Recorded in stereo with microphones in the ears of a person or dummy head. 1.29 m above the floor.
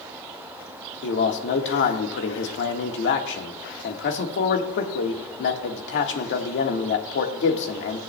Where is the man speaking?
80° left, 1.4 m.